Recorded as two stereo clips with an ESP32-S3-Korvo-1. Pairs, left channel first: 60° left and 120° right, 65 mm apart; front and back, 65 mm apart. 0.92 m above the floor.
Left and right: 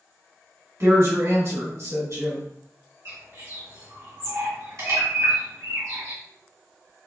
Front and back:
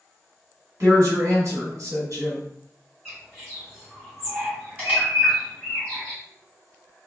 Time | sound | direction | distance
0.8 | a woman speaking | 150° right | 1.9 m
3.0 | a bird | 115° right | 1.9 m